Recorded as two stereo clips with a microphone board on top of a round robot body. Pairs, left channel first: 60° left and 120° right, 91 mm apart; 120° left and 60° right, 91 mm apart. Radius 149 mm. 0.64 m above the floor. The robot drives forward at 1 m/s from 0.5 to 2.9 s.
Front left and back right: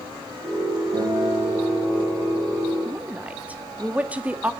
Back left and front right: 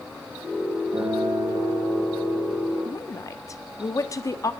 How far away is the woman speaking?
About 1.7 m.